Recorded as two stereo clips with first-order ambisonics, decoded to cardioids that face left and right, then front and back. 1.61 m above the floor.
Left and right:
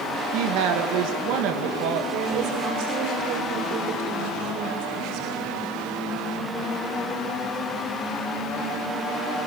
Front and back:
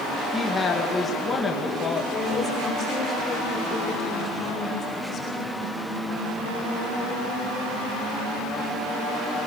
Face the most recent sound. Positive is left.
turn(degrees=-70)